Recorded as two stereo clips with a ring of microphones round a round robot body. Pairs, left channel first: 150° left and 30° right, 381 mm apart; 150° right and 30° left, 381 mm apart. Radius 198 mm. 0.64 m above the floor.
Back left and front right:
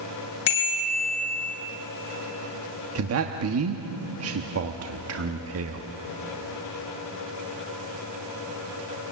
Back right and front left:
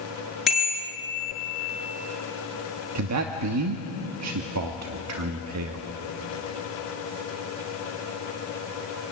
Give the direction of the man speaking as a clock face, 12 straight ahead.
12 o'clock.